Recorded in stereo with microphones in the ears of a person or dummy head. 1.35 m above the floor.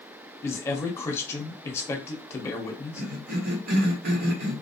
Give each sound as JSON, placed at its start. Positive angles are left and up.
{"t": 0.4, "sound": "a man speaking", "side_deg": 10, "distance_m": 0.8}
{"t": 3.0, "sound": "a cough", "side_deg": -65, "distance_m": 1.1}